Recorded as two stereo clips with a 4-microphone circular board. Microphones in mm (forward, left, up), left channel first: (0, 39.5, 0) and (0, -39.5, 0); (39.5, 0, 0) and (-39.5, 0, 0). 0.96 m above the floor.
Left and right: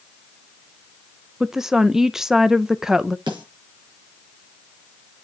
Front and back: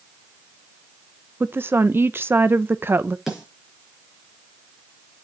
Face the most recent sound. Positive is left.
turn(degrees=-95)